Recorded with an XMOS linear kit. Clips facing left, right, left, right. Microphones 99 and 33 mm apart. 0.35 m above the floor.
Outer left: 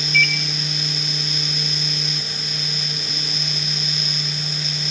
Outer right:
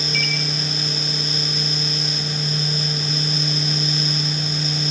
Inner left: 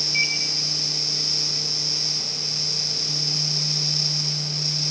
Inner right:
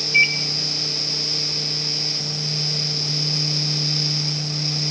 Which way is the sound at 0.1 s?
40° right (ahead or behind).